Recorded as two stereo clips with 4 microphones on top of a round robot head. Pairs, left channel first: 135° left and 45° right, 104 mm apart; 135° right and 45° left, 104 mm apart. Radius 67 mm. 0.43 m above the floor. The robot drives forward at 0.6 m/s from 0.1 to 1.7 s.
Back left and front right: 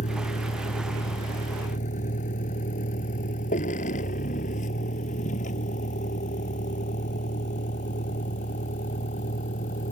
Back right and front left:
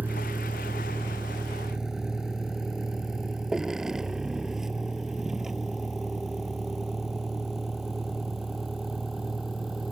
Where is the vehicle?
125° left; by 9.9 s 135° left.